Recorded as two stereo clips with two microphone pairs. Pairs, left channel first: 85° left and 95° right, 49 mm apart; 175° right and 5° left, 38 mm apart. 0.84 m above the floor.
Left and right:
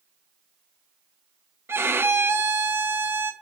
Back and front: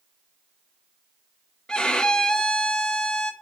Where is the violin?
115° right, 0.5 m.